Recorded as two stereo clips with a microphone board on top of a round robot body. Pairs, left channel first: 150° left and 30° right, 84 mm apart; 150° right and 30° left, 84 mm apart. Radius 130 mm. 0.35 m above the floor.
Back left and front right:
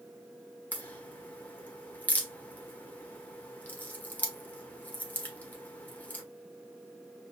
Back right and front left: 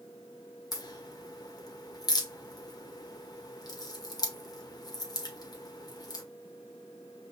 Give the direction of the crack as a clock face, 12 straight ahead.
5 o'clock.